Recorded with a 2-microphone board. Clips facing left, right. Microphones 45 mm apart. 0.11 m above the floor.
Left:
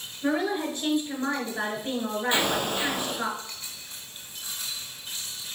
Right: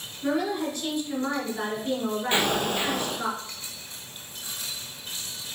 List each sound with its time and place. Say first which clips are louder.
0.2 s a woman speaking: even; 25° left (ahead or behind), 1.4 m
2.3 s an explosion: right 1 dB; 50° right (ahead or behind), 1.9 m